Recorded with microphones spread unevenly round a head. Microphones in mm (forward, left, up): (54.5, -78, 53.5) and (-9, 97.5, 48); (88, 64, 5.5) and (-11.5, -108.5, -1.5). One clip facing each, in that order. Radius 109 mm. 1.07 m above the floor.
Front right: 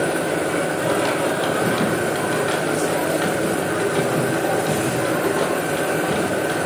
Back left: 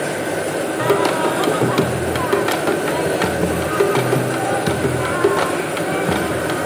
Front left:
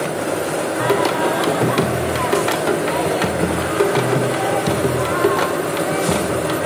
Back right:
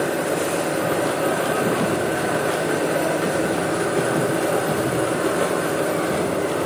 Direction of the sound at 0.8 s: 85° left.